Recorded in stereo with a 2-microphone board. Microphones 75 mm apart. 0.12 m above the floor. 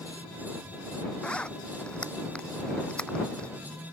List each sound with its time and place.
1.2 s a zipper: 15° left (ahead or behind)